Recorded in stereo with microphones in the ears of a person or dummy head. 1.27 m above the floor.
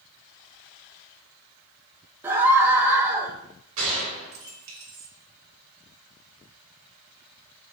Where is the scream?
10° right (ahead or behind), 1.0 m.